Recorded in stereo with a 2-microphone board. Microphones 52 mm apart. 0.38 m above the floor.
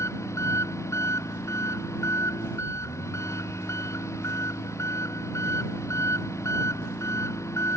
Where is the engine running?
85° left.